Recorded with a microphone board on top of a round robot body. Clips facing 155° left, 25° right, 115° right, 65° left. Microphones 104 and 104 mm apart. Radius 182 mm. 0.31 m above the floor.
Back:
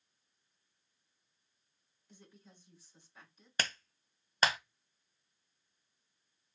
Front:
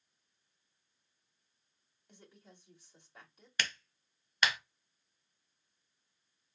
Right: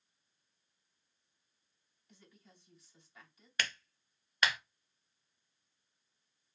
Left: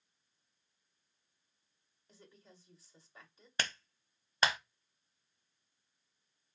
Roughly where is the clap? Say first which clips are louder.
Back 1 dB, left 1 dB; behind left.